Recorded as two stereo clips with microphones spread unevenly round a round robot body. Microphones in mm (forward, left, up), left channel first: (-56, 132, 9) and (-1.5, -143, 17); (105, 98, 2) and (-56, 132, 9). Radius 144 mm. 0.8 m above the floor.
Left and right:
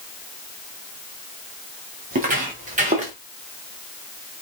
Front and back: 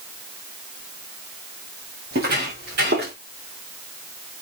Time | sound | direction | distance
2.1 | footsteps | 140° right | 4.5 m